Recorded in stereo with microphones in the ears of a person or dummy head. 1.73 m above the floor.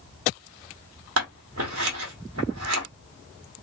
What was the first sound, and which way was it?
Scissors, 75° right (ahead or behind).